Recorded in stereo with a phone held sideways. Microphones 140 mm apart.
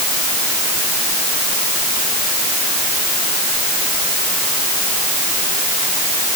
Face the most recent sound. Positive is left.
No sound to turn to.